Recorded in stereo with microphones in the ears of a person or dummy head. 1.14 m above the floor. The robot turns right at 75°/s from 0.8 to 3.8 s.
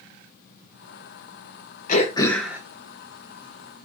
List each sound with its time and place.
1.9 s throat clearing: 140° left, 0.7 m; by 2.6 s 165° right, 0.7 m